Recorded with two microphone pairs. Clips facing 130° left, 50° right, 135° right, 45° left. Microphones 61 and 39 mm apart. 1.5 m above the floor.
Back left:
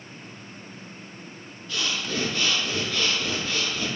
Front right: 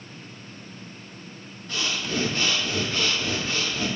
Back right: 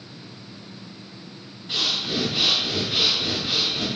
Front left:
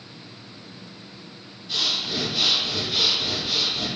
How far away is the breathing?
About 1.5 m.